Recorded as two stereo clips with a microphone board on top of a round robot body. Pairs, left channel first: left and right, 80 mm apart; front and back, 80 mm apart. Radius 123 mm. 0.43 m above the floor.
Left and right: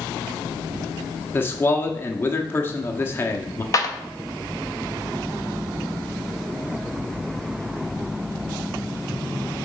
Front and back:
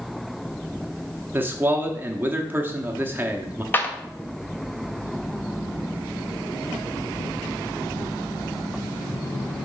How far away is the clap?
About 1.2 m.